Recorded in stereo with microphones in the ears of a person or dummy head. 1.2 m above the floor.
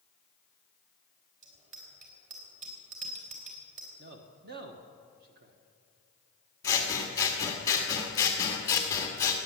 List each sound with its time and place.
1.4 s a bicycle bell: 40° right (ahead or behind), 3.5 m
4.0 s a man speaking: 55° right (ahead or behind), 1.3 m
6.6 s scissors: 20° left (ahead or behind), 1.8 m